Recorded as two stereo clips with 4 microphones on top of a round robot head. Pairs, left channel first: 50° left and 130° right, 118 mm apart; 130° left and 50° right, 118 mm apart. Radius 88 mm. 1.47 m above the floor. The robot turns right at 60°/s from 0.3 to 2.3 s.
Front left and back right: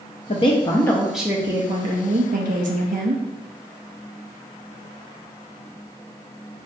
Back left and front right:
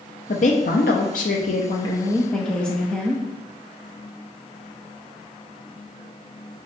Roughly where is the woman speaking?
Left.